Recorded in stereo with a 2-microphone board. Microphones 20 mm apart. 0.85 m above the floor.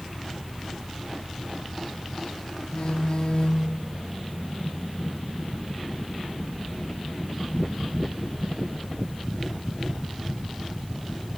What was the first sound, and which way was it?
A phone buzzing, 55° left (ahead or behind).